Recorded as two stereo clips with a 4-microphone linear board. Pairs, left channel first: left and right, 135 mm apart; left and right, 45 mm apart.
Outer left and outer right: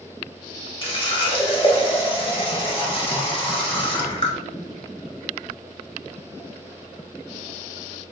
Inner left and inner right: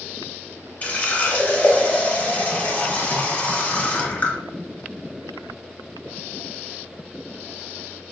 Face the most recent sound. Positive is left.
turn(degrees=40)  # may be behind; listen again after turning